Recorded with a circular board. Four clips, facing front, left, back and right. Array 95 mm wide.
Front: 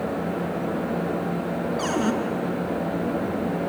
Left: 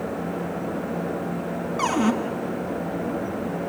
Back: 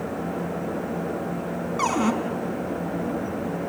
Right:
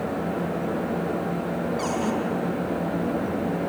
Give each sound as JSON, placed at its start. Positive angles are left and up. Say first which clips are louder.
{"t": 1.8, "sound": "a cupboard door", "louder": "left 8 dB, back 3 dB", "azimuth_deg": 150, "distance_m": 4.0}